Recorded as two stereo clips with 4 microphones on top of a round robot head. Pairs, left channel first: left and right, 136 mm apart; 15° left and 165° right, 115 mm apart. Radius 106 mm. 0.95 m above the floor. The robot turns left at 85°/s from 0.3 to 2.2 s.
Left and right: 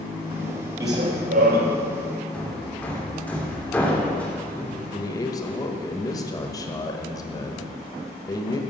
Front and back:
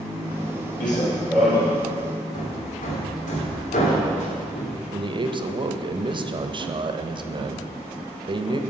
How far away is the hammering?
About 2.5 m.